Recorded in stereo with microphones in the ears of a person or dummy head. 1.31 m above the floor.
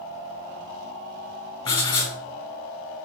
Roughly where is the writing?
Left.